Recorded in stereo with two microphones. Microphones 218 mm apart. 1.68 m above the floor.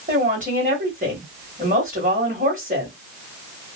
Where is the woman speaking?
35° right (ahead or behind), 1.9 m.